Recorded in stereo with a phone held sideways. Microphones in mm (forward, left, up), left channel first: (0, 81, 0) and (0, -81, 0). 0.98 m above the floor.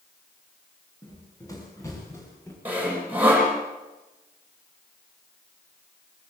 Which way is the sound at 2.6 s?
10° right (ahead or behind).